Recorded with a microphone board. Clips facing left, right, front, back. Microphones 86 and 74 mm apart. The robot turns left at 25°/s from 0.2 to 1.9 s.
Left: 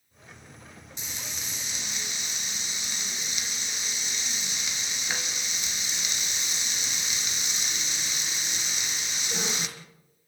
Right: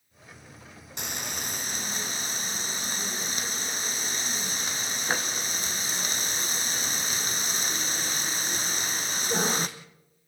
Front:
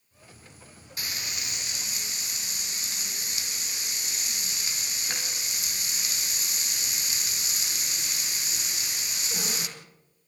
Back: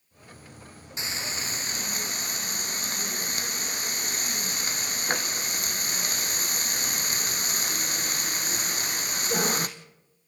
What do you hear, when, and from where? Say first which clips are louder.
1.0 s frying: right 6 dB, back 4 dB; 115° right, 1.9 m; by 9.7 s 140° right, 1.9 m